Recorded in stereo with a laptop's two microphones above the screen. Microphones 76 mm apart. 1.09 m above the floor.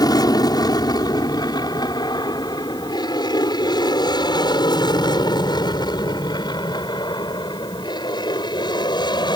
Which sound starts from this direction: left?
An aircraft, at 0.0 s.